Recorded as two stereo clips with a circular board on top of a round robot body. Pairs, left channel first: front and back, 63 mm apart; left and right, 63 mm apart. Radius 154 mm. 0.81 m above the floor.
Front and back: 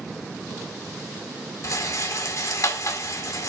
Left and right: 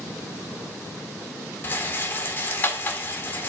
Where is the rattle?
30° left, 1.7 m.